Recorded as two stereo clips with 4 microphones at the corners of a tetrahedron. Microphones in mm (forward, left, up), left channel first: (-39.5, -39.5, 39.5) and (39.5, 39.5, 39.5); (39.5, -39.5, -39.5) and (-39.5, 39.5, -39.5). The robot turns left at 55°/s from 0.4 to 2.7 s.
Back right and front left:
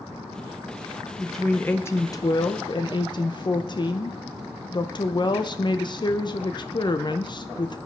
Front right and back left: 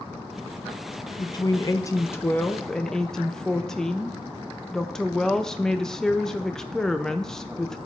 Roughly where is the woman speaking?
Ahead right.